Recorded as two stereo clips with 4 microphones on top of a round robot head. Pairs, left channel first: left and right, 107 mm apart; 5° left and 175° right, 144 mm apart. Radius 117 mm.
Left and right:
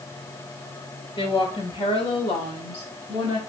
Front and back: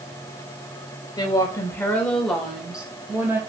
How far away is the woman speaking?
About 3 m.